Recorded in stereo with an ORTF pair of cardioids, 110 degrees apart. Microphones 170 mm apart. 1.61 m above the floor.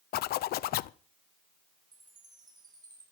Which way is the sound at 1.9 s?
25° right.